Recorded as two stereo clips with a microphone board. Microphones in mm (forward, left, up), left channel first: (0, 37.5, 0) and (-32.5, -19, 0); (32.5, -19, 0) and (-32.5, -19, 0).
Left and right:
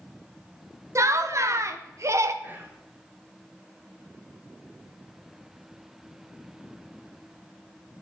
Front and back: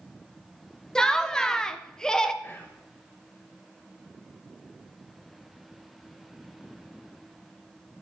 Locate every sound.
0.9 s laughter: 80° right, 0.6 m
2.4 s whispering: 60° right, 1.1 m